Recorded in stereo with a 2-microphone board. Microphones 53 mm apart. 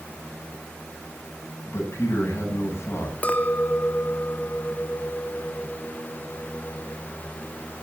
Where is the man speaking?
50° left (ahead or behind), 9.5 m.